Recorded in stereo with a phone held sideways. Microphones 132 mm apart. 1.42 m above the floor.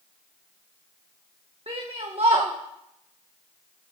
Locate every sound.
1.7 s a shout: 45° right (ahead or behind), 1.6 m